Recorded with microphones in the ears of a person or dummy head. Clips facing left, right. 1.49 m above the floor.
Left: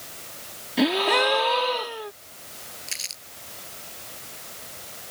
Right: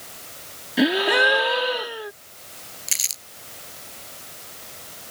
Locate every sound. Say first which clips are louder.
0.8 s a gasp: right 2 dB; 20° right (ahead or behind)
2.9 s crumpling: even; 50° right (ahead or behind)